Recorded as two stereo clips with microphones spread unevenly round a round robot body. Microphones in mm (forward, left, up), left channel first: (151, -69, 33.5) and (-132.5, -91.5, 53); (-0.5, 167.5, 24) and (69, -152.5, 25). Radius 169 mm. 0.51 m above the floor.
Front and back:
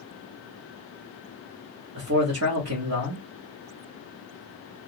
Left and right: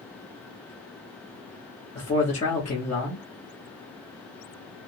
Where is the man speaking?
160° left, 1.2 m.